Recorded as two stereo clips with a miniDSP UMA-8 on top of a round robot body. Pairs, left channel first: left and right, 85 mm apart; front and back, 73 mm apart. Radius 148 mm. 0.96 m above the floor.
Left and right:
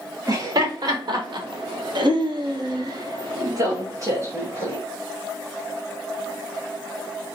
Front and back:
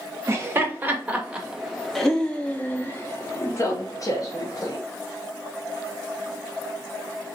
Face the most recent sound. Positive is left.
turn(degrees=-35)